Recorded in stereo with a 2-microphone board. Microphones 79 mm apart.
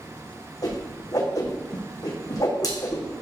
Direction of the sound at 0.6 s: 50° left (ahead or behind).